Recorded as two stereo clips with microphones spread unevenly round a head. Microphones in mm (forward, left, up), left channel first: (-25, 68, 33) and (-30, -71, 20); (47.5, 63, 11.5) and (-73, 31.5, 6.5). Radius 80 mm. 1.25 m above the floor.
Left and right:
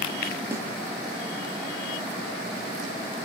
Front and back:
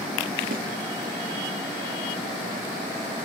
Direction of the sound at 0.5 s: 170° right.